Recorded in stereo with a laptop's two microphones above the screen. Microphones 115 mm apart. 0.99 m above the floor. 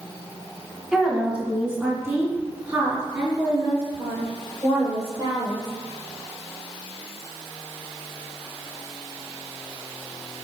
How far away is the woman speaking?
About 1.4 m.